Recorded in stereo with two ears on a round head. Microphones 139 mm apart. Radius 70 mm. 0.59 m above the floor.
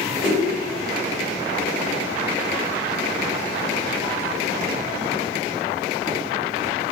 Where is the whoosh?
Centre (ahead or behind), 1.3 m.